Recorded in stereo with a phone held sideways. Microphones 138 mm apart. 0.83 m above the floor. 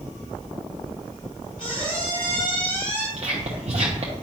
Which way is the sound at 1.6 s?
85° left.